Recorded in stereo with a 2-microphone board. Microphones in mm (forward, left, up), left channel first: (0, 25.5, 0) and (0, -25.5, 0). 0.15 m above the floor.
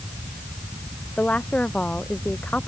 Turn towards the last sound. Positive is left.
turn(degrees=25)  # may be behind; listen again after turning